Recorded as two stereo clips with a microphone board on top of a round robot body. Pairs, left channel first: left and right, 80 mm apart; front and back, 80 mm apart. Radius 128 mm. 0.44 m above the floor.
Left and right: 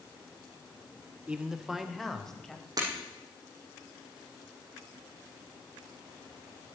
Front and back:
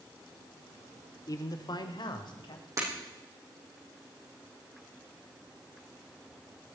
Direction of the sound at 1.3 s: 20° right.